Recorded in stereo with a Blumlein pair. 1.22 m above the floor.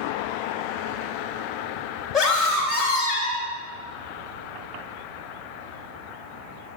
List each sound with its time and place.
2.1 s a scream: 20° left, 3 m